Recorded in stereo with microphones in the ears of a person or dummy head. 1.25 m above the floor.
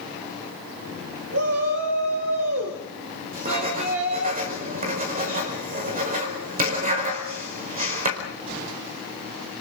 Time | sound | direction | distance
1.3 | a shout | 90° right | 5 m
3.3 | writing | 40° right (ahead or behind) | 5 m